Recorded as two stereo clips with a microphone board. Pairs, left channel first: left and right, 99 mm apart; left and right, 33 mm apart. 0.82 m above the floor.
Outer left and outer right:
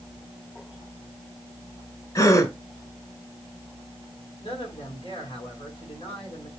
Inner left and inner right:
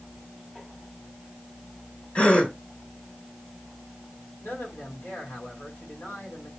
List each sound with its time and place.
2.1 s a gasp: 40° left (ahead or behind), 2 m
4.4 s a man speaking: 70° left (ahead or behind), 6.5 m